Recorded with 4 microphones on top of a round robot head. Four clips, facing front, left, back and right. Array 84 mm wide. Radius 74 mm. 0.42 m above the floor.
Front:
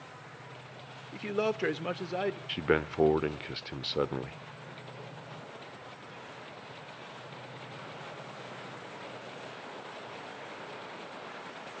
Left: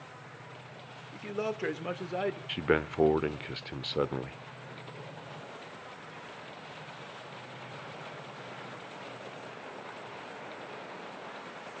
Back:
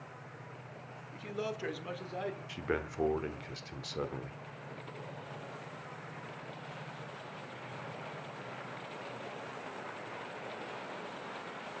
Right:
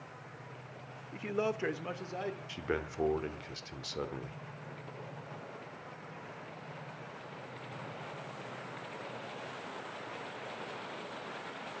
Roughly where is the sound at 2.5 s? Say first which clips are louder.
Left 10 dB, front 8 dB; ahead left.